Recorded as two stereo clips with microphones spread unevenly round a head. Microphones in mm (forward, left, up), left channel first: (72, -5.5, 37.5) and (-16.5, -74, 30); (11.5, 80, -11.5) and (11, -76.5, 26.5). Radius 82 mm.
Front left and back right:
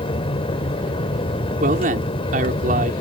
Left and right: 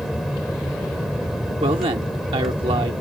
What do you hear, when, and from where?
0.0 s an aircraft: straight ahead
1.6 s a man speaking: 150° right